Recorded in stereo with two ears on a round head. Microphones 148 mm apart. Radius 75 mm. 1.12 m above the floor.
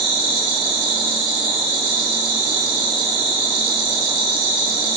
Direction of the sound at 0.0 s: 30° right (ahead or behind).